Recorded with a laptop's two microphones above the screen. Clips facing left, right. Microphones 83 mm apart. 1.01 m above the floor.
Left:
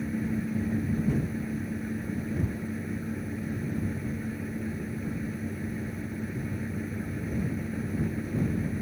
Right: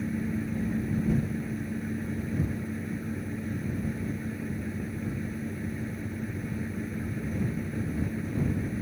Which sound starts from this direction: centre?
A fan, at 0.0 s.